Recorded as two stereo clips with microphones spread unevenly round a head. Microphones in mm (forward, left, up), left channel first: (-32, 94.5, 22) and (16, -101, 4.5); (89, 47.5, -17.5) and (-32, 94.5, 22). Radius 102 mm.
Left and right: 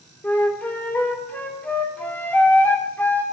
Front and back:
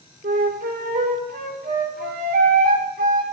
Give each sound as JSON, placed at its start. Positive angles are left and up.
{"t": 0.2, "sound": "a flute", "azimuth_deg": -175, "distance_m": 0.9}